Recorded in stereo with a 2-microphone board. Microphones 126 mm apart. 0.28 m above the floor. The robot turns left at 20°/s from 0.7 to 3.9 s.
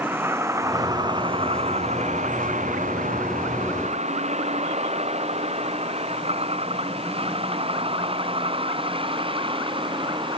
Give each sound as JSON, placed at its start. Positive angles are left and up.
{"t": 0.0, "sound": "a vehicle", "side_deg": -15}